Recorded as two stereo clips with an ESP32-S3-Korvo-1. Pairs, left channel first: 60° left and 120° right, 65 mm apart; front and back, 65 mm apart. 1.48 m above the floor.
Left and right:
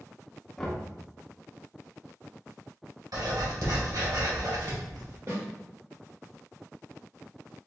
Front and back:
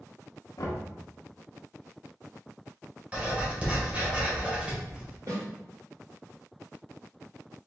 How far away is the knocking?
About 1.3 m.